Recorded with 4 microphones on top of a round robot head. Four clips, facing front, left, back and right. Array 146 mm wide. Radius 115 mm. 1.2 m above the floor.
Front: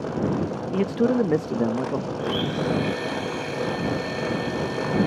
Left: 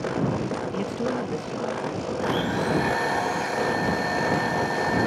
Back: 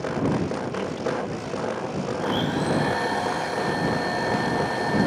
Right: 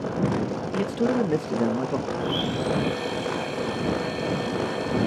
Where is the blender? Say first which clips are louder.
Left 2 dB, back 3 dB; 130° left.